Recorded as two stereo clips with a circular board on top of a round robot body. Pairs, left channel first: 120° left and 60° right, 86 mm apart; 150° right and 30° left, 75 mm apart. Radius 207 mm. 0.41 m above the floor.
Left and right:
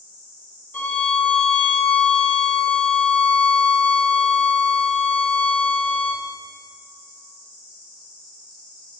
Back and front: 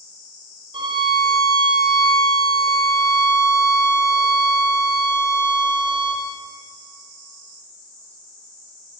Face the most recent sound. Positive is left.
turn(degrees=45)